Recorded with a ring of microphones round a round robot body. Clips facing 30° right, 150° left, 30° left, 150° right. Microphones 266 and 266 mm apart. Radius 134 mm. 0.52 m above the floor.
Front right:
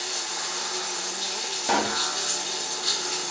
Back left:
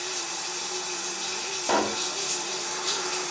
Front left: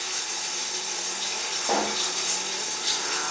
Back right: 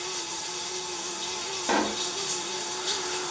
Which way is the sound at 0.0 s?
5° left.